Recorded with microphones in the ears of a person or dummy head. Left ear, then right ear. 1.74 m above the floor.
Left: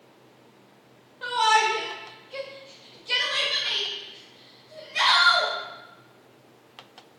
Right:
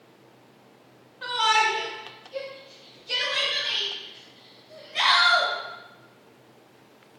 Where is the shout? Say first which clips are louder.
Left 1 dB; centre (ahead or behind), 0.7 m; by 5.5 s 30° left (ahead or behind), 1.8 m.